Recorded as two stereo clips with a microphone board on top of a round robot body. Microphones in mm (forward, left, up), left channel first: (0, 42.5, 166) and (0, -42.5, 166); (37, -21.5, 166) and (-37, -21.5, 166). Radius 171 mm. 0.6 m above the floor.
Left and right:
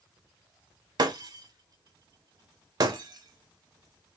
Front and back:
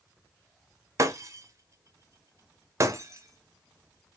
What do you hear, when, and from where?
1.0 s breaking glass: 130° right, 0.9 m